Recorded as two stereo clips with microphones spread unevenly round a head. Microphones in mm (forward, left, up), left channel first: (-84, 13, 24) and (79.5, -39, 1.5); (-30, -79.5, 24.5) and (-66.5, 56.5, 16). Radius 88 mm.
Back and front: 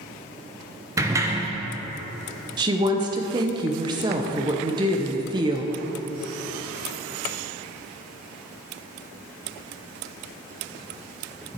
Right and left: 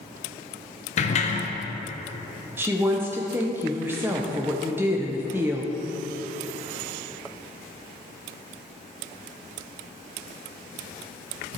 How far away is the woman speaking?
About 0.6 m.